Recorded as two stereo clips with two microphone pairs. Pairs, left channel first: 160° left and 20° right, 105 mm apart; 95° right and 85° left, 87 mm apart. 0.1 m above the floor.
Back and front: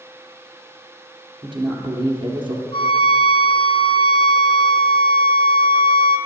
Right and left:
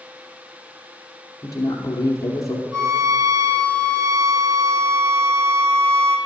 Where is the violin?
130° left, 1.2 m.